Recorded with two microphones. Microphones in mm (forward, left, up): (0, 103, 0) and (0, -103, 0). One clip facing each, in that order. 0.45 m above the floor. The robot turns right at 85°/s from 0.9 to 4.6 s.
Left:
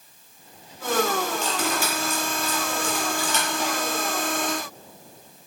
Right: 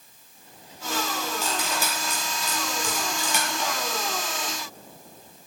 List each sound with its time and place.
1.4 s cutlery clinking: 5° right (ahead or behind), 6 m; by 3.7 s 20° left (ahead or behind), 6 m